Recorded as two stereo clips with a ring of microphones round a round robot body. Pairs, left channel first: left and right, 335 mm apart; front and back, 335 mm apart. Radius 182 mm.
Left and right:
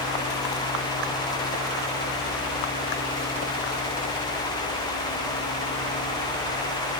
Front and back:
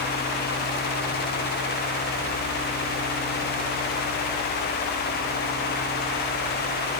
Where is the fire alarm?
No fire alarm in this recording.